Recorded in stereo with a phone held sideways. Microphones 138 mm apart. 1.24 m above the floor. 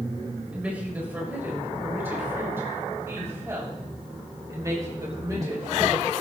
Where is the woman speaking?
10° right (ahead or behind), 6.5 m; by 6.1 s 30° right (ahead or behind), 8.5 m.